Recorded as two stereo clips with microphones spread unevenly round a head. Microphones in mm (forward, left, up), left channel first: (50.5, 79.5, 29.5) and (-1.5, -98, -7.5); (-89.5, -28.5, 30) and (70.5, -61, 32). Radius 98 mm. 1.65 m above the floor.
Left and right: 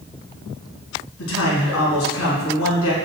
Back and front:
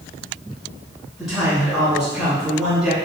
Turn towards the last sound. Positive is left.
turn(degrees=75)